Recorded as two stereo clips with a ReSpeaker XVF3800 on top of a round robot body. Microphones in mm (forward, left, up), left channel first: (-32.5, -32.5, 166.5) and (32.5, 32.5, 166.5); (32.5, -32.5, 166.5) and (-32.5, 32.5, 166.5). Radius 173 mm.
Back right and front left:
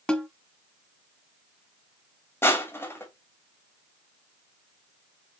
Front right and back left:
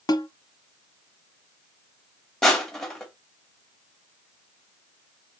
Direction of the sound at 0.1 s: 60° right.